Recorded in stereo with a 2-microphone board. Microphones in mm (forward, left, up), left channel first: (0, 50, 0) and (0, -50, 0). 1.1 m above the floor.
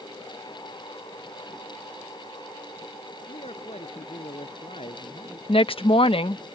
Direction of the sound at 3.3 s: 85° left.